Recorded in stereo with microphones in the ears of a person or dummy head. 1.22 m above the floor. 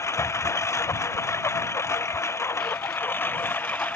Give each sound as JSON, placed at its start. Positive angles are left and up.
{"t": 0.0, "sound": "a lawn mower", "side_deg": 15}